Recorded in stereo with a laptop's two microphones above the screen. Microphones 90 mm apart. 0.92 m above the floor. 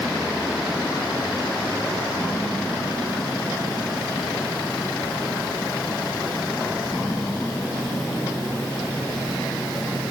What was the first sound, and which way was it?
Only background noise.